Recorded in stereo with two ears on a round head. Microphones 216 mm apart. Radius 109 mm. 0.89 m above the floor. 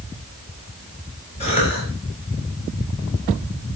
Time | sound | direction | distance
1.4 | a cough | 30° left (ahead or behind) | 6.5 m